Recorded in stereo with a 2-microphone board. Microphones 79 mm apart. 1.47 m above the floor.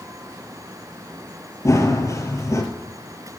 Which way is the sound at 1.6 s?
40° left (ahead or behind).